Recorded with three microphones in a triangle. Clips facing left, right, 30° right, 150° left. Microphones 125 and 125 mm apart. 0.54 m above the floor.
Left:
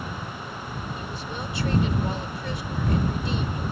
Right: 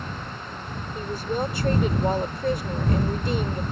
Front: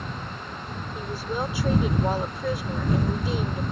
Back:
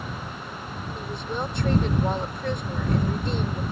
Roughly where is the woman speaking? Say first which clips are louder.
Right 7 dB, front 2 dB; right.